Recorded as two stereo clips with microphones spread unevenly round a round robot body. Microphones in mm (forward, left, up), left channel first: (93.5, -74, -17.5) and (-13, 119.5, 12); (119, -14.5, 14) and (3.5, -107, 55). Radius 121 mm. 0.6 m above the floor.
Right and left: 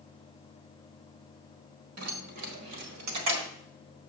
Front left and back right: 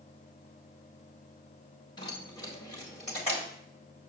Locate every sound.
2.0 s keys jangling: 105° left, 1.7 m; by 3.5 s 135° left, 1.8 m